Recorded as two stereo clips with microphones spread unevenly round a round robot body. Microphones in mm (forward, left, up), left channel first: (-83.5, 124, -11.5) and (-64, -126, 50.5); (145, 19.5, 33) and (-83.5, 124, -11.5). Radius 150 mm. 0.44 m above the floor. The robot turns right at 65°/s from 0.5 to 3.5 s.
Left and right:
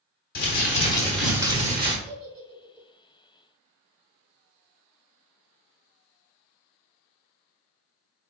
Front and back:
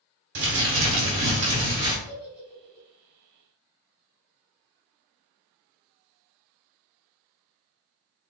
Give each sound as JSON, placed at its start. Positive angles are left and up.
{"t": 0.3, "sound": "crumpling", "azimuth_deg": 130, "distance_m": 1.3}
{"t": 2.0, "sound": "a giggle", "azimuth_deg": -145, "distance_m": 1.7}